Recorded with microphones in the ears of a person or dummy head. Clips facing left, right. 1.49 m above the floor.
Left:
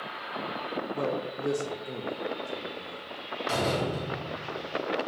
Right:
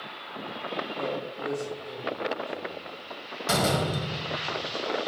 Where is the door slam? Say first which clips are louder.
Right 2 dB; 65° right (ahead or behind), 1.2 m.